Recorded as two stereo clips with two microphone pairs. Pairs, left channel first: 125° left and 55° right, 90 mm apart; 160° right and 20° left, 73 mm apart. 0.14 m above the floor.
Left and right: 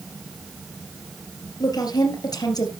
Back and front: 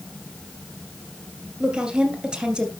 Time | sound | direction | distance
1.6 | a woman speaking | 100° left | 2 m